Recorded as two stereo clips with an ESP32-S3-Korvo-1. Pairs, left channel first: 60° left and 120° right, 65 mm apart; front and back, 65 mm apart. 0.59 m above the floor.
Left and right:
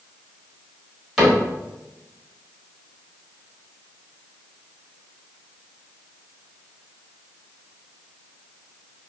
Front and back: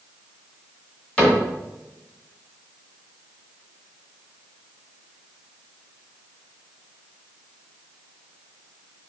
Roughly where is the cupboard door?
Ahead right.